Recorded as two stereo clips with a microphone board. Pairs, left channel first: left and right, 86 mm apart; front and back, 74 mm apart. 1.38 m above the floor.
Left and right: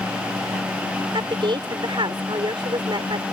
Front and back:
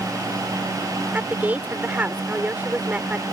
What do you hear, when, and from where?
1.1 s a woman speaking: 110° right